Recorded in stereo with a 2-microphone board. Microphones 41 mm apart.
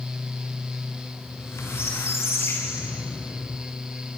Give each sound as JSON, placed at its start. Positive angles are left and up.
{"t": 1.3, "sound": "a squeak", "side_deg": 85, "distance_m": 8.0}